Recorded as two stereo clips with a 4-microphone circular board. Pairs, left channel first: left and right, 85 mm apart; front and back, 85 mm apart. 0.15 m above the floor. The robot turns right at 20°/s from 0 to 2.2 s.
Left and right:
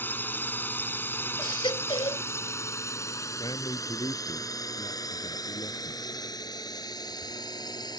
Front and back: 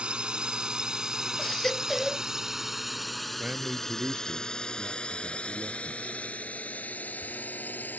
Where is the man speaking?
110° left.